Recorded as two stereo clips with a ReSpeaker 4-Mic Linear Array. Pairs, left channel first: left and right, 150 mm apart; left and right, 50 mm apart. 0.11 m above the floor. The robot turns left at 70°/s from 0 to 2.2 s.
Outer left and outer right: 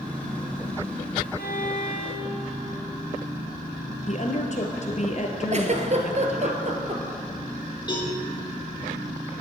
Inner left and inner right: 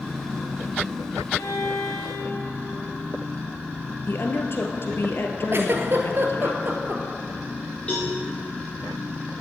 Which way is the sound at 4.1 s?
50° left (ahead or behind).